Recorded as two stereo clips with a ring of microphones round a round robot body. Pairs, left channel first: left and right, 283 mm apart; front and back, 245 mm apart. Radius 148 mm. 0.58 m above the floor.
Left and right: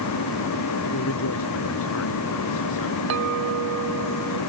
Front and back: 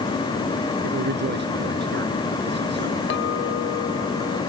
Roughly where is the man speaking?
Behind left.